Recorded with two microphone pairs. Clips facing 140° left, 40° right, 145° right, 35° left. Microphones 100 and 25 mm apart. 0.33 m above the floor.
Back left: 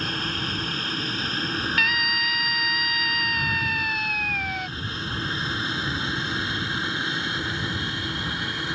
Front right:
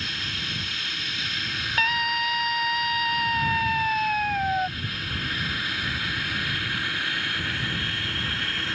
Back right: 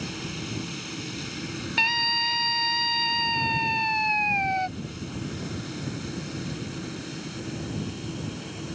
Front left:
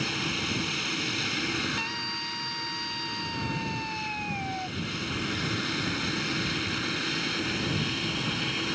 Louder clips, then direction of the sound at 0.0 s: Back left 6 dB, front left 5 dB; 95° left.